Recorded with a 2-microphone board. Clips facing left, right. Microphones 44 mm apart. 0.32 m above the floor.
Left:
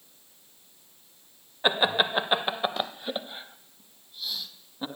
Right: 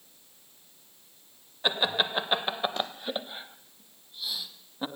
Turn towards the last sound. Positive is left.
turn(degrees=-10)  # may be behind; listen again after turning